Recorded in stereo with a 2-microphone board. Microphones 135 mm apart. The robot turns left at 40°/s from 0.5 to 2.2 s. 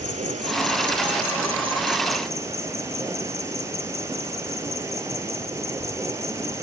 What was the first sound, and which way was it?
An insect, 90° right.